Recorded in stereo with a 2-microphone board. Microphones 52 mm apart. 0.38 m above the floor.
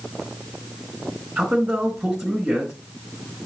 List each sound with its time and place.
1.4 s a man speaking: 15° right (ahead or behind), 4 m